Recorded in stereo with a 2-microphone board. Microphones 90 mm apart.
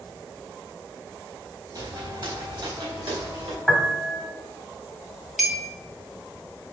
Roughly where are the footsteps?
Right.